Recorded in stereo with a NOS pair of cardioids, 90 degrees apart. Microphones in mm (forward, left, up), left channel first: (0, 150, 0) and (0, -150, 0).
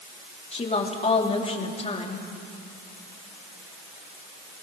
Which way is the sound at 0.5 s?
20° left.